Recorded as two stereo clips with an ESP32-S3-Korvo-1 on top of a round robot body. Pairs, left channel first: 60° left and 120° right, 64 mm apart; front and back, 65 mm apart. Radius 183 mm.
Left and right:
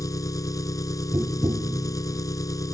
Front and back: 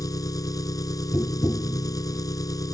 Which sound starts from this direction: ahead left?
An engine running, at 0.0 s.